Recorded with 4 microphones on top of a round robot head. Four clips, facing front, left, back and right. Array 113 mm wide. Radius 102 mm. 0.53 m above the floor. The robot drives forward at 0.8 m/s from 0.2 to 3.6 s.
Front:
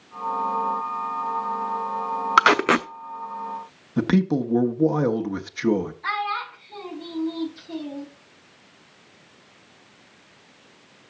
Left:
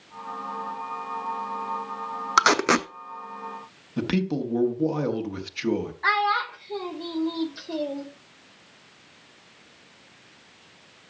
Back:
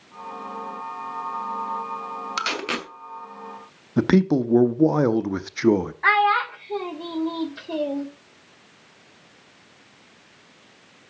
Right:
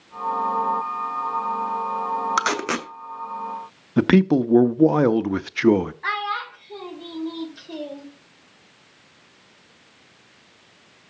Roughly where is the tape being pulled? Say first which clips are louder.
Left 3 dB, front 13 dB; ahead.